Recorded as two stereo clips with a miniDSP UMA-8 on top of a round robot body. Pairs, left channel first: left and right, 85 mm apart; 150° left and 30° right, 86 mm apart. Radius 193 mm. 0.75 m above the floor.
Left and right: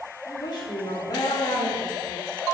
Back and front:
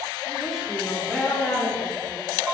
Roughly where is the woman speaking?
Ahead left.